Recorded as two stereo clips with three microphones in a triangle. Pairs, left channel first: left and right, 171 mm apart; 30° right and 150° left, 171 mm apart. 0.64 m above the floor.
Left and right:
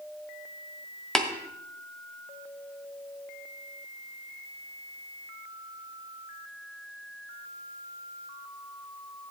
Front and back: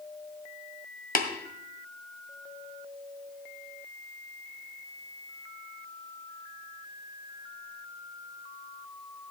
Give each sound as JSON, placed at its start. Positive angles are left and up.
{"t": 1.1, "sound": "tapping", "azimuth_deg": 5, "distance_m": 1.9}